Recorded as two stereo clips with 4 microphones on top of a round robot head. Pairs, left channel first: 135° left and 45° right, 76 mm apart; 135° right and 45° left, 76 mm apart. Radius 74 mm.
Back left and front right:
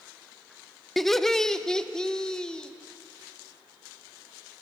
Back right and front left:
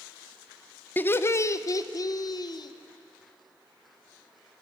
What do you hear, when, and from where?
1.0 s laughter: 145° right, 0.8 m; by 2.7 s 150° right, 1.6 m